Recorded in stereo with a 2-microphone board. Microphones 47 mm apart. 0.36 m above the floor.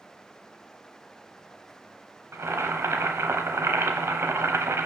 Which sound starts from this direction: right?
Boiling, at 2.3 s.